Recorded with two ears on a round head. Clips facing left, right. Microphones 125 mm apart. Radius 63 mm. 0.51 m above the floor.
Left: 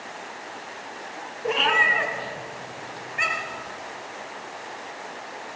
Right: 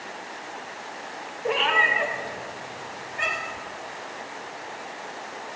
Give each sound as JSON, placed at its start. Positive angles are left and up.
{"t": 1.4, "sound": "a cat meowing", "side_deg": 40, "distance_m": 1.4}